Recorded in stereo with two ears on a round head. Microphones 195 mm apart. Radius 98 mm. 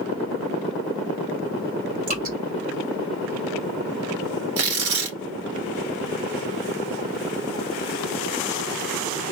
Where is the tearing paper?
70° right (ahead or behind), 1.3 m.